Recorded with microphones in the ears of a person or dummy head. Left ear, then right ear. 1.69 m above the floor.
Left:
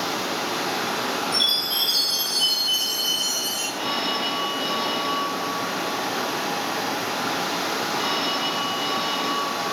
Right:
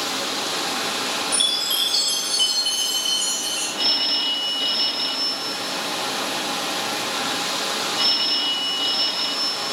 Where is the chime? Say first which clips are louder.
Even; 40° right (ahead or behind), 2.5 m.